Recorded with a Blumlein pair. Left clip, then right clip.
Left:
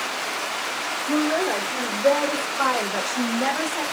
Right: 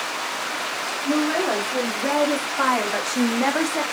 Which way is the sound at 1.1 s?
20° right.